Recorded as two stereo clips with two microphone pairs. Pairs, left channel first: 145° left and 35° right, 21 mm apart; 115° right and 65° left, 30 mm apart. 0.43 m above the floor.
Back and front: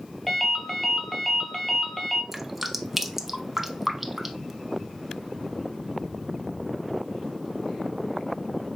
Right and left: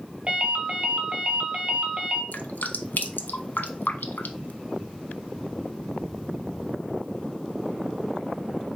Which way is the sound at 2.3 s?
115° right.